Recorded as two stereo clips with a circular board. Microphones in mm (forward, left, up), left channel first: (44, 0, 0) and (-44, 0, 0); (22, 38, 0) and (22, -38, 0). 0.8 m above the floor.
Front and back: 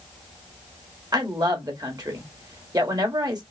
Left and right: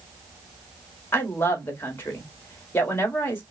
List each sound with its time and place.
1.1 s a woman speaking: 145° left, 1.6 m